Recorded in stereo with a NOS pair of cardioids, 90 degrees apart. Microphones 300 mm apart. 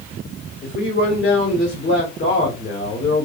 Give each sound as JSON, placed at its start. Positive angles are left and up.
{"t": 0.6, "sound": "a man speaking", "azimuth_deg": 35, "distance_m": 1.3}